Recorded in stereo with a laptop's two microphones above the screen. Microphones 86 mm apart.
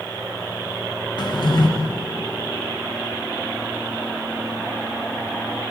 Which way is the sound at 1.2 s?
60° left (ahead or behind).